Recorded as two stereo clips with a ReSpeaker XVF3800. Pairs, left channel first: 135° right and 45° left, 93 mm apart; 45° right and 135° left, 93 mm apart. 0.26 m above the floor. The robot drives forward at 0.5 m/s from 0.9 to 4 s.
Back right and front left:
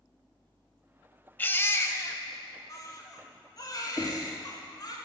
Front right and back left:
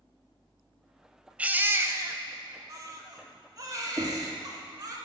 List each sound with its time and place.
1.4 s a baby crying: 175° right, 0.5 m; by 5.0 s straight behind, 1.6 m
4.0 s knocking: 170° left, 2 m